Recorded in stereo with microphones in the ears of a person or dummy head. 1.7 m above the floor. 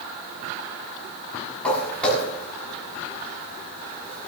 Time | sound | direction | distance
1.6 | footsteps | 5° left (ahead or behind) | 8 m